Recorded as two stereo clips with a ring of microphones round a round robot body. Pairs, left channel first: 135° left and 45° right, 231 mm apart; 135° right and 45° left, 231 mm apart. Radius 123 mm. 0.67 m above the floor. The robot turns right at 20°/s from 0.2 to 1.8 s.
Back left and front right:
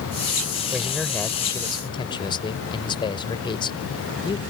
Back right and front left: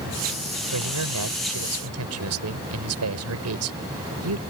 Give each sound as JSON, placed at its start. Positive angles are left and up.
{"t": 0.7, "sound": "a man speaking", "azimuth_deg": 40}